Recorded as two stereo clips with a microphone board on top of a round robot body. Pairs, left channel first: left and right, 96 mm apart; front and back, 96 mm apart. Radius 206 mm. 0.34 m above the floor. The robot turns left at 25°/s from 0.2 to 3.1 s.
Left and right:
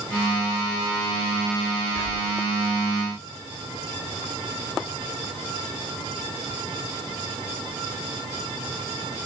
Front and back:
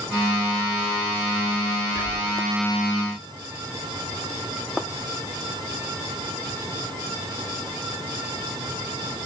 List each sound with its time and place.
1.9 s whispering: 115° left, 1.8 m; by 2.4 s 105° left, 1.8 m